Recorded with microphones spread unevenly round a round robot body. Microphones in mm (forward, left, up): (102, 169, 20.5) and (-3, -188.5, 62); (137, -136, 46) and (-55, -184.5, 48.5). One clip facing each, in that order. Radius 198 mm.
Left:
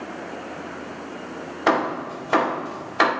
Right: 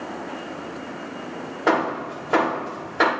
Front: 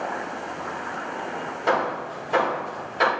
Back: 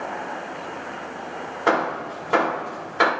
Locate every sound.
1.7 s hammering: 140° left, 1.7 m